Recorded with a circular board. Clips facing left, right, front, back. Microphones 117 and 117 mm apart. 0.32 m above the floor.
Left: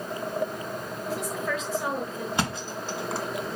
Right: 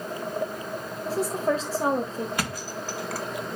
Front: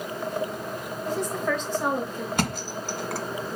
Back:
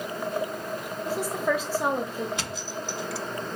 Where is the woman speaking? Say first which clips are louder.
Right 6 dB, even; 105° right, 1.2 m.